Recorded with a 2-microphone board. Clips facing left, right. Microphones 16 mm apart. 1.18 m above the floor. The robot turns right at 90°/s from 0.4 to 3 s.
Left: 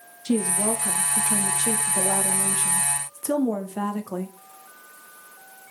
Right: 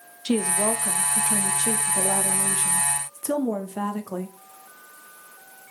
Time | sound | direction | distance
0.2 | a woman speaking | 70° right | 0.8 m